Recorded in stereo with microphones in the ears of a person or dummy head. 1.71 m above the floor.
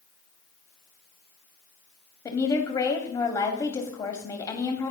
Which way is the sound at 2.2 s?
20° left (ahead or behind).